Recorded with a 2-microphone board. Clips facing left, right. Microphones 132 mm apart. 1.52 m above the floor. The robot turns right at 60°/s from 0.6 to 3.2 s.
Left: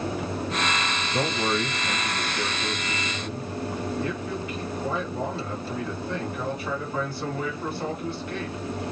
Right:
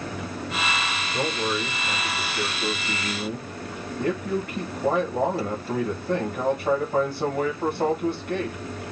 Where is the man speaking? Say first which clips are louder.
Left 1 dB; 105° left, 2.0 m; by 8.6 s 130° right, 2.0 m.